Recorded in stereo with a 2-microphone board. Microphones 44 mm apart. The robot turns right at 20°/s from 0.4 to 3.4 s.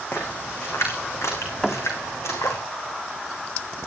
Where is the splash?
55° left (ahead or behind), 6 m; by 2.6 s 80° left, 6 m.